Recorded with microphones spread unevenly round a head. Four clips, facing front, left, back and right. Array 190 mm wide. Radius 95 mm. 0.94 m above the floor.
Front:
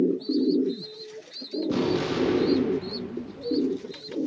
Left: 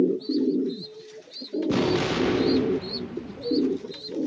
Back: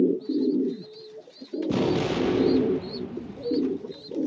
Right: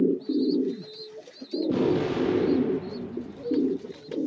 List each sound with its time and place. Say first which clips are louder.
1.7 s an explosion: even, back 1 dB; 145° left, 0.7 m